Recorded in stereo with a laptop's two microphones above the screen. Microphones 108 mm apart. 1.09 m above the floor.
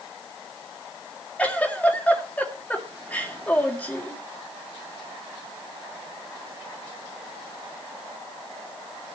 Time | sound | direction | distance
1.4 | a giggle | 10° left (ahead or behind) | 3.5 m